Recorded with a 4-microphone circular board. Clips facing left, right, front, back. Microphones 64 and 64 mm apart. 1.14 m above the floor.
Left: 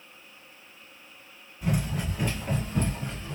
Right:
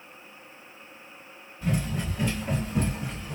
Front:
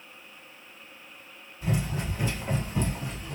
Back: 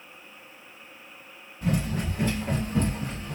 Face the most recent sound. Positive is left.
turn(degrees=-160)